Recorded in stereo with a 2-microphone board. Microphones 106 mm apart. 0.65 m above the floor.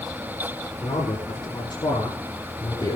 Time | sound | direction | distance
0.8 | a man speaking | 55° left (ahead or behind) | 9 m